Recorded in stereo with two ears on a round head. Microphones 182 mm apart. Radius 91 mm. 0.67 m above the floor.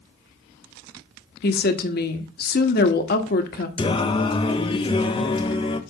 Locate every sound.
1.4 s a woman speaking: 50° left (ahead or behind), 1.5 m
3.8 s singing: 25° left (ahead or behind), 1.0 m